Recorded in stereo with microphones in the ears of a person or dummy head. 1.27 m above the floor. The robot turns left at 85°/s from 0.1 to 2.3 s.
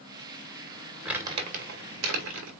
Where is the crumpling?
5° right (ahead or behind), 1.8 m; by 2.5 s 65° right (ahead or behind), 1.8 m.